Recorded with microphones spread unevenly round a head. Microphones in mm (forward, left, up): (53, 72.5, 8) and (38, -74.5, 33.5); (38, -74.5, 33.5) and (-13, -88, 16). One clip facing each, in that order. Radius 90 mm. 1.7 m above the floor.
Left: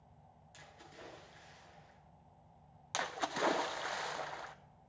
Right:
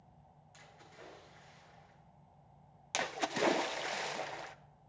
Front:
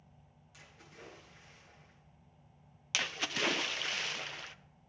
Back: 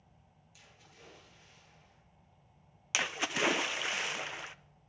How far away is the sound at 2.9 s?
About 0.7 m.